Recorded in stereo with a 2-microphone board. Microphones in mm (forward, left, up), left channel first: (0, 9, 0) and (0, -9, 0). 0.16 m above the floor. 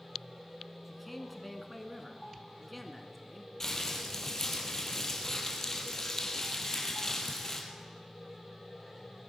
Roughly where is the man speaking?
Centre.